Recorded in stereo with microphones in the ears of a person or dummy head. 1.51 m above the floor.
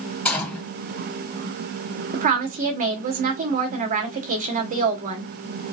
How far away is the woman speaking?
About 1.5 m.